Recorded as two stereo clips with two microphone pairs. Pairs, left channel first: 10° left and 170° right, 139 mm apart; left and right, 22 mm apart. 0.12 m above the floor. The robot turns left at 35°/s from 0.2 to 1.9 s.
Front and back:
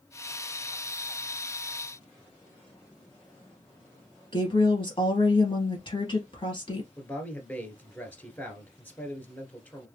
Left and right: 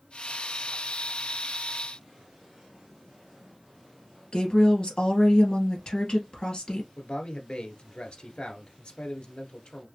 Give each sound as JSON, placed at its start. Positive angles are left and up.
{"t": 4.3, "sound": "a woman speaking", "azimuth_deg": 55, "distance_m": 2.0}
{"t": 7.0, "sound": "a man speaking", "azimuth_deg": 85, "distance_m": 1.6}